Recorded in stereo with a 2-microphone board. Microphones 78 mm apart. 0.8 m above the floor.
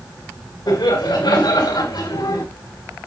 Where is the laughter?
75° left (ahead or behind), 4.5 m.